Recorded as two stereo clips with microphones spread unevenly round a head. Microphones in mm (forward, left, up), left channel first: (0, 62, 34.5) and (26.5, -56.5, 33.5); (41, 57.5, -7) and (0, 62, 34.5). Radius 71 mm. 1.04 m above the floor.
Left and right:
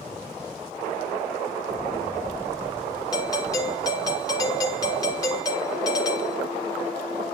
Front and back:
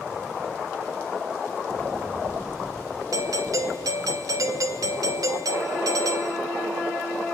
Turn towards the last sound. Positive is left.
turn(degrees=160)